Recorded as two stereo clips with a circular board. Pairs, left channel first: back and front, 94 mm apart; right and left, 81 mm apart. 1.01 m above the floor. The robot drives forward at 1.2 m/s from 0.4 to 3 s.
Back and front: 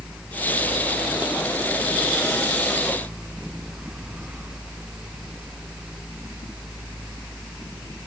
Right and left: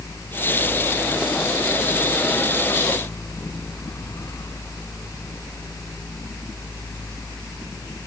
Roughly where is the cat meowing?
No cat meowing in this recording.